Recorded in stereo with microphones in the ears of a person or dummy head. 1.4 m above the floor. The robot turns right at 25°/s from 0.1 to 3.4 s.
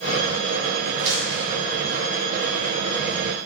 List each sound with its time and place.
1.0 s crumpling: 55° right (ahead or behind), 1.6 m; by 1.5 s 50° right (ahead or behind), 1.6 m